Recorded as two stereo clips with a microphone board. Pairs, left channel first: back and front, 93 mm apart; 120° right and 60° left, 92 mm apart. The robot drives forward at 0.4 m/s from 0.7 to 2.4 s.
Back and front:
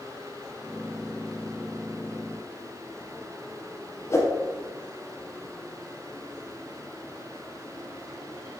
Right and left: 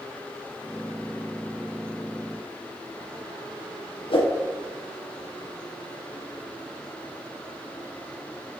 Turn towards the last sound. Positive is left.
turn(degrees=-120)